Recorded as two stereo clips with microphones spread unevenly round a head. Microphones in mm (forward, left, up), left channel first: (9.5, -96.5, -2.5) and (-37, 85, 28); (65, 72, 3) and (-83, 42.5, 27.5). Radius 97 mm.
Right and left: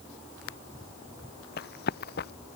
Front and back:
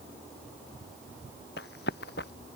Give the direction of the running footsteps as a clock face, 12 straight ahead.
1 o'clock.